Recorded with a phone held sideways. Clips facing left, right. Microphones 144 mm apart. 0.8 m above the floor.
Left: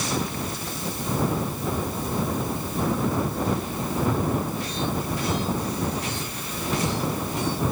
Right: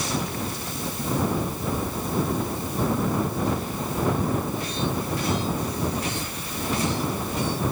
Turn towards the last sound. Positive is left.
No sound to turn to.